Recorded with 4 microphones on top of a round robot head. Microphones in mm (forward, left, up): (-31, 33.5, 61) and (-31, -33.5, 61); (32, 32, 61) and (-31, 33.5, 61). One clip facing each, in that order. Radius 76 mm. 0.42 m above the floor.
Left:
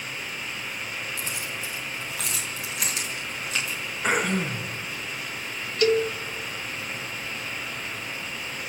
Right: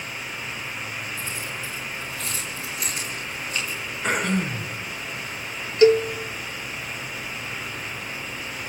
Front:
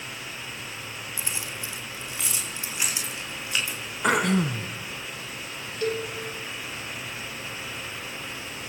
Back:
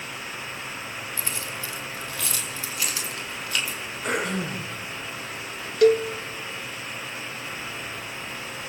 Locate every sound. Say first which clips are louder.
1.2 s keys jangling: right 1 dB, back 2 dB; 70° left, 2.5 m; by 3.8 s 65° left, 5.5 m
4.0 s throat clearing: even, front 5 dB; 5° left, 2 m
5.8 s a cowbell: right 6 dB, back 11 dB; 155° right, 1.1 m